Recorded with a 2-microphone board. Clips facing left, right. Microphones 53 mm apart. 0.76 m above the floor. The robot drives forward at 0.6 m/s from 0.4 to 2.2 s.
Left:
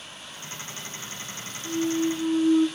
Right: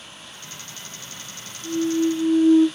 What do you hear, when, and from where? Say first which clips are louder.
1.6 s a clunk: right 4 dB; 30° right (ahead or behind), 5.5 m